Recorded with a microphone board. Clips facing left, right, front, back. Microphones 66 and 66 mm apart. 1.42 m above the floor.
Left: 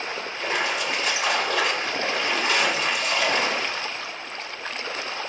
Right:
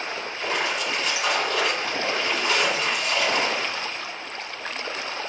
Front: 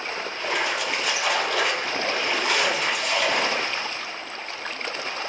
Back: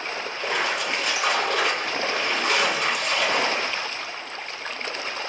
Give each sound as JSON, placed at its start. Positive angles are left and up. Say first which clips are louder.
{"t": 0.3, "sound": "a splash", "louder": "left 1 dB, even", "azimuth_deg": 155, "distance_m": 1.6}